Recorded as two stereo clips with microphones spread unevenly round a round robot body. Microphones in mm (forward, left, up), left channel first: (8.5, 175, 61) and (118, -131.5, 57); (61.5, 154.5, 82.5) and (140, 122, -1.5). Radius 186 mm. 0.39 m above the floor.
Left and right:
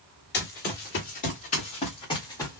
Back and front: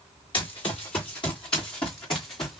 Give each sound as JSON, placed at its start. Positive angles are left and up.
{"t": 0.3, "sound": "running footsteps", "azimuth_deg": 170, "distance_m": 3.0}